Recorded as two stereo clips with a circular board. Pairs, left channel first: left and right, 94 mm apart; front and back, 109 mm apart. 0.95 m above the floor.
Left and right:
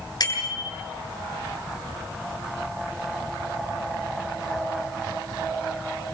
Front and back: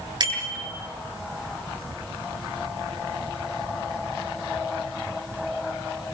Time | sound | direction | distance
0.2 | a bicycle bell | 135° left | 8.5 m